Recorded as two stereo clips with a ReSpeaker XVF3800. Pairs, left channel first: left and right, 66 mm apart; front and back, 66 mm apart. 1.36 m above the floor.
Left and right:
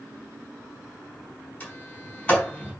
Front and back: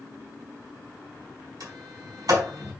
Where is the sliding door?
160° left, 4.5 m.